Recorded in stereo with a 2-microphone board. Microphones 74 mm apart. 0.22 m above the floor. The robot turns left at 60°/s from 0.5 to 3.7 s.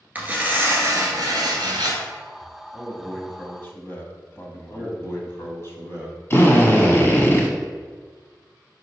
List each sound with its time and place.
0.1 s tearing paper: 25° right, 1.7 m; by 2.0 s 115° right, 1.7 m
2.7 s a man speaking: straight behind, 1.1 m; by 5.0 s 125° left, 1.1 m
4.7 s a man speaking: 35° left (ahead or behind), 1.5 m
6.3 s a drill: 35° left (ahead or behind), 1.2 m